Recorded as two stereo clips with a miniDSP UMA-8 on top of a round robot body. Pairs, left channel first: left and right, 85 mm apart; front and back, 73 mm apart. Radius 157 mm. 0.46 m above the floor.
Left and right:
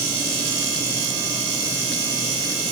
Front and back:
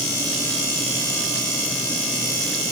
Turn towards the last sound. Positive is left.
No sound to turn to.